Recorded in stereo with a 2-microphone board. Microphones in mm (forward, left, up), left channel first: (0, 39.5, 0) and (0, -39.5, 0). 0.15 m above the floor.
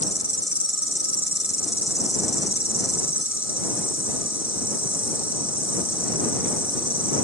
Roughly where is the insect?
Centre.